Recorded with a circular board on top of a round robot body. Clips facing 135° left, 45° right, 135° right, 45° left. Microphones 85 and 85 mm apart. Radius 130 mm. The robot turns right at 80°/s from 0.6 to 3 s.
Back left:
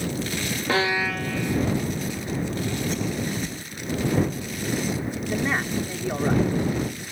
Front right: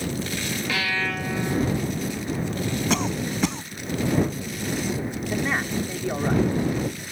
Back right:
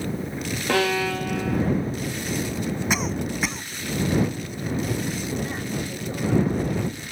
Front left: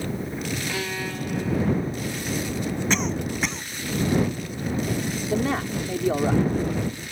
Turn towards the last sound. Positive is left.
turn(degrees=45)